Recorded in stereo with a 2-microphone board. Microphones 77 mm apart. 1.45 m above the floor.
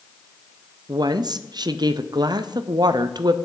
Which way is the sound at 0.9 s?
55° right (ahead or behind).